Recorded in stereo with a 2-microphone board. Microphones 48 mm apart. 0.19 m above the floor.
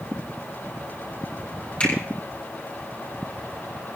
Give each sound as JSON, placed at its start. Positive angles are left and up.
{"t": 1.8, "sound": "a finger snap", "side_deg": 25, "distance_m": 5.5}